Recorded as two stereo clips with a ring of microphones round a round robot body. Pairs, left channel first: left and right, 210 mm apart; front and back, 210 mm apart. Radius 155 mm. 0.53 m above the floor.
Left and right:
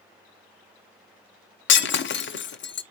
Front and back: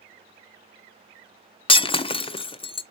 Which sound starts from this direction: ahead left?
Breaking glass, at 1.7 s.